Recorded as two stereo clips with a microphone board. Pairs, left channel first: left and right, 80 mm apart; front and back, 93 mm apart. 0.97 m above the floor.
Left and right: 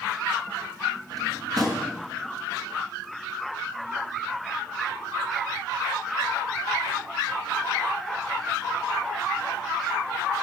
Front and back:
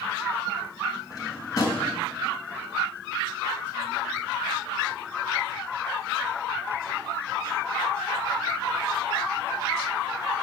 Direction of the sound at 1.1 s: 50° right.